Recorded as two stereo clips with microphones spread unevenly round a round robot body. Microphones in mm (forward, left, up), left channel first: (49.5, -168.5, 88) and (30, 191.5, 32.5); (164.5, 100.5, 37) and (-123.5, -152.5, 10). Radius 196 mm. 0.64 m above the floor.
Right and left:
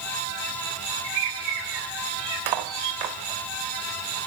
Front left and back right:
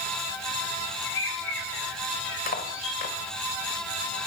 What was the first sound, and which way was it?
A bird, 105° left.